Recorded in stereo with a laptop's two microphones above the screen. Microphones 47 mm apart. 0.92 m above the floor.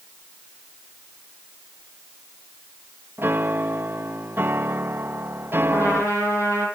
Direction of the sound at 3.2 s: 50° right (ahead or behind).